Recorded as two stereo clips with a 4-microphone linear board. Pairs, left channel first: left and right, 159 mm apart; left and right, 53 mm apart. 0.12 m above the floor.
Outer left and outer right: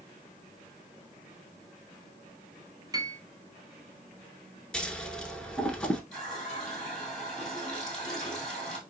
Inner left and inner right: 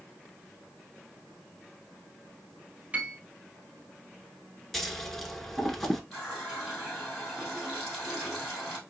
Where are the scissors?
5° left (ahead or behind), 0.7 m.